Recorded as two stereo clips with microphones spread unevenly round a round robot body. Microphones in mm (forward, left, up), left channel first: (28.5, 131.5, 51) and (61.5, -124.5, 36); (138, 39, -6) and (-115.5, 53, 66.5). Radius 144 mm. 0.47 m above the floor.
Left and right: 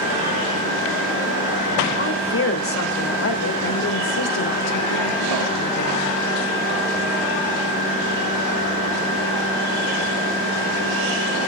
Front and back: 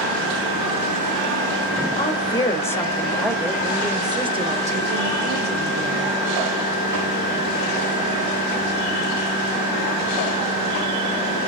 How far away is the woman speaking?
About 2.5 m.